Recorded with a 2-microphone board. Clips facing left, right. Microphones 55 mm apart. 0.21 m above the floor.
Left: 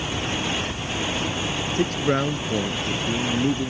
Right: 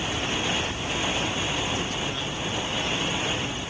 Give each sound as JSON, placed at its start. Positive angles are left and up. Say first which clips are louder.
{"t": 1.8, "sound": "a man speaking", "louder": "left 8 dB", "side_deg": 50}